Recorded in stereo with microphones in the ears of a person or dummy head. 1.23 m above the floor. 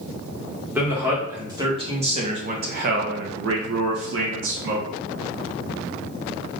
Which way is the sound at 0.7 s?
5° right (ahead or behind).